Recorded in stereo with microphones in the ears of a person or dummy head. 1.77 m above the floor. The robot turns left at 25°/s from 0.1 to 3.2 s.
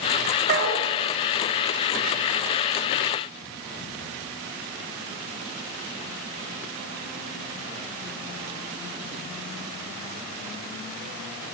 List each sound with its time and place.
0.5 s a dog barking: 55° right (ahead or behind), 2.5 m; by 0.8 s 50° right (ahead or behind), 2.5 m